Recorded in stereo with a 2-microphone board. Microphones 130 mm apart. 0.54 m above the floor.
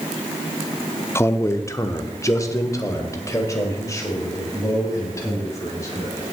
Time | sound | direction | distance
1.1 | a man speaking | 20° left (ahead or behind) | 0.7 m